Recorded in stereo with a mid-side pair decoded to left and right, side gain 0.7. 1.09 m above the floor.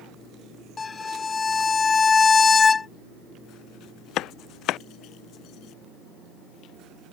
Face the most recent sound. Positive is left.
turn(degrees=20)